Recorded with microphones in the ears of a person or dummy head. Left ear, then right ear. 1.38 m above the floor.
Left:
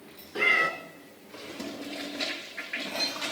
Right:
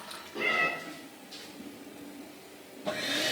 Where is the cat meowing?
40° left (ahead or behind), 1.9 m.